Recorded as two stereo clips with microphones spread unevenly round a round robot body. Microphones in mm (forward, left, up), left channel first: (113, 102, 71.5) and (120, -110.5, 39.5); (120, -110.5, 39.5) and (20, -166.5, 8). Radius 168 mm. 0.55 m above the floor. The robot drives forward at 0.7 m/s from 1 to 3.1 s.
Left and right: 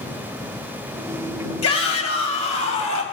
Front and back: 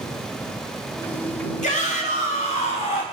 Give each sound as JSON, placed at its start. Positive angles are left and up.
{"t": 1.6, "sound": "a shout", "azimuth_deg": 85, "distance_m": 4.0}